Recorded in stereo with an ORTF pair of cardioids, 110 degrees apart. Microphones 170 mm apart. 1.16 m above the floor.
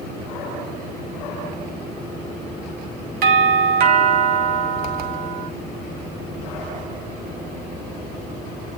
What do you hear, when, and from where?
3.2 s a doorbell: 65° right, 2.5 m